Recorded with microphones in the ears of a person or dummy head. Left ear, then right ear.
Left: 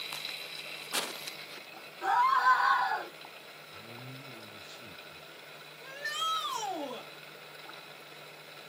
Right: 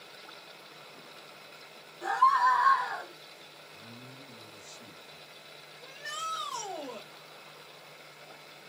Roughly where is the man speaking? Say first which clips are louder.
Left 4 dB; right.